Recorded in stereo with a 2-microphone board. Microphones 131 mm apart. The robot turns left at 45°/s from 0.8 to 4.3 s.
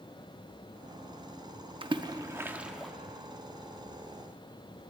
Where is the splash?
40° right (ahead or behind), 0.5 m; by 2.9 s 5° left (ahead or behind), 0.5 m.